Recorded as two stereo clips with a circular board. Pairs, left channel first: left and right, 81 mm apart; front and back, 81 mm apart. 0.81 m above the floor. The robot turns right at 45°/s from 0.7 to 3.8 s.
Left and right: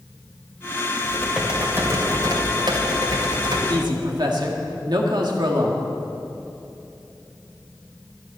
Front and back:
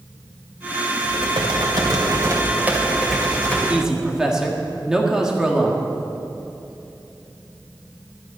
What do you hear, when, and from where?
1.0 s typing on a keyboard: 175° left, 2.5 m; by 3.6 s 70° right, 2.5 m
3.7 s a man speaking: 105° right, 1.6 m; by 5.8 s 100° right, 1.6 m